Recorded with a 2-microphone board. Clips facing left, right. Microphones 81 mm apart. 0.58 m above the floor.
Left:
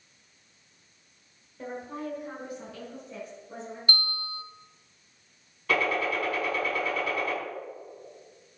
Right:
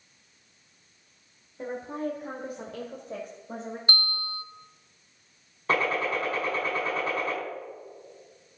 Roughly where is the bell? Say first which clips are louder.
Left 1 dB; right.